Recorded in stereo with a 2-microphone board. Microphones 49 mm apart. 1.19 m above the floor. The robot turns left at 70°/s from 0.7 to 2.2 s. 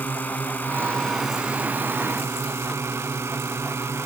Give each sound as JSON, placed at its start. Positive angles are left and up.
{"t": 0.0, "sound": "a drone", "azimuth_deg": 35}